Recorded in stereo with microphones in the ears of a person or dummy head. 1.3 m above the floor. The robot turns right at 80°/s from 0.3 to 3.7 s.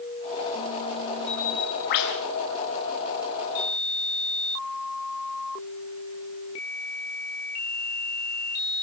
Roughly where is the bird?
Ahead.